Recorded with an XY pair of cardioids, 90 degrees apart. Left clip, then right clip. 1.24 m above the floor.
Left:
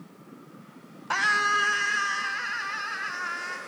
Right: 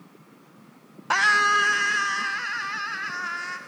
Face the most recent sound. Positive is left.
turn(degrees=-15)